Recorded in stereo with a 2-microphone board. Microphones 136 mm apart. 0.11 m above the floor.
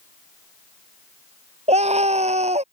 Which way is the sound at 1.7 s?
55° right (ahead or behind).